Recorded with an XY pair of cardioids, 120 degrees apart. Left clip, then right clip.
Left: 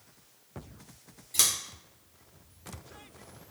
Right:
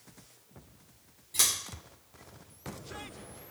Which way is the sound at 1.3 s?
20° left.